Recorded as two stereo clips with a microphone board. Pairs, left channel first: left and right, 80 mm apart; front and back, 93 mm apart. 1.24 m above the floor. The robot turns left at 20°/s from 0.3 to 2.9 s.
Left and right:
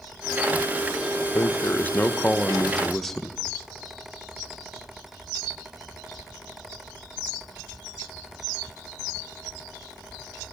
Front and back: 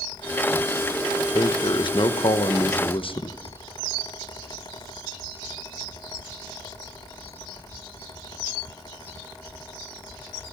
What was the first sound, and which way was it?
A man speaking, 35° left.